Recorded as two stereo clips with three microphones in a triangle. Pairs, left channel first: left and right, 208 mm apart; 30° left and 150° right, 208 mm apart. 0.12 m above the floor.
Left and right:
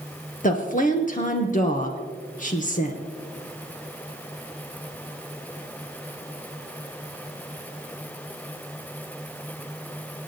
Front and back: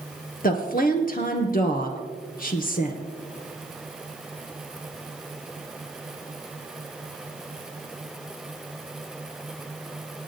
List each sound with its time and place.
0.4 s a woman speaking: 55° left, 2.0 m